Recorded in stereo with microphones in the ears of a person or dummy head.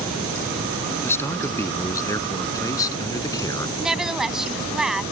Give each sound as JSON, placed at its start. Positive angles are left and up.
{"t": 1.0, "sound": "a man speaking", "side_deg": 15}
{"t": 3.8, "sound": "a woman speaking", "side_deg": -5}